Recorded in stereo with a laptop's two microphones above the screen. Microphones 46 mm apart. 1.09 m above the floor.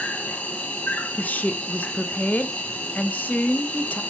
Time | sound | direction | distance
0.0 | an insect | 30° left (ahead or behind) | 1.6 m
1.2 | a woman speaking | 35° left (ahead or behind) | 0.8 m